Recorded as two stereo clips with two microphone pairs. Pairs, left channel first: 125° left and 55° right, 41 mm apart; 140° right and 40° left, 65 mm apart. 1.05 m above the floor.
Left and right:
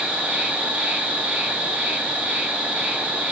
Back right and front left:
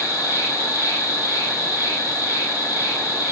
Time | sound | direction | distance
0.0 | an insect | 125° right | 0.9 m